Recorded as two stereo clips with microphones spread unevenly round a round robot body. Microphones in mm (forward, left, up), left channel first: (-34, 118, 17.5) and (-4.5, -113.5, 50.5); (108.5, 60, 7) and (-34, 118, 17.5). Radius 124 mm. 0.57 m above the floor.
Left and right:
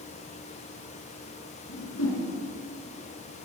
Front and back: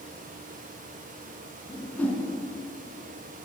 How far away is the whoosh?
About 4 m.